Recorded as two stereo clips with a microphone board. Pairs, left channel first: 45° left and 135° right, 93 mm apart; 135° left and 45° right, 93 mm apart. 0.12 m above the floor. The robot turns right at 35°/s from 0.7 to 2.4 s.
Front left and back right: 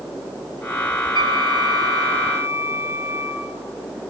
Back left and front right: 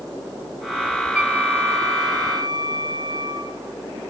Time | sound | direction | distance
1.1 | a flute | 120° right | 1.0 m